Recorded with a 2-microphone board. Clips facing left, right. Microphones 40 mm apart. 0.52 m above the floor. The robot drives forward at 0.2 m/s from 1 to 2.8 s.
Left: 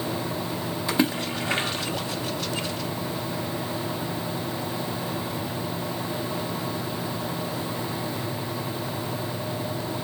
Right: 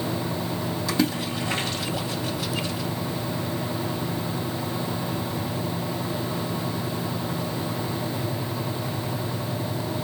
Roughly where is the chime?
I don't hear a chime.